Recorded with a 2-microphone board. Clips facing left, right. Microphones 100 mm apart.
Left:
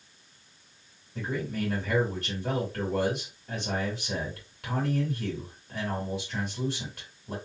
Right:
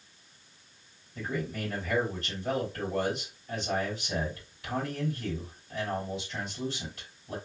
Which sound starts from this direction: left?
A man speaking, at 1.1 s.